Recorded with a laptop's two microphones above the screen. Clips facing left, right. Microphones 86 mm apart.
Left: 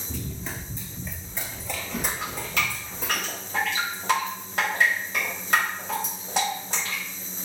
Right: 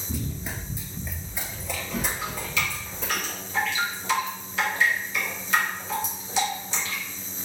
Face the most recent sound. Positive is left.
turn(degrees=50)  # may be behind; listen again after turning